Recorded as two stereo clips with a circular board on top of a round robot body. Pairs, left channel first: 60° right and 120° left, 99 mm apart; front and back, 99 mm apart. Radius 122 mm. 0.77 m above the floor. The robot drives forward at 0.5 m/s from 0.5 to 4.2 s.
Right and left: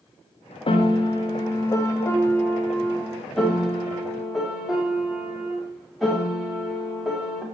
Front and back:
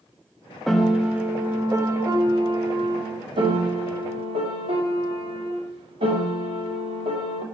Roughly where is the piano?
Right.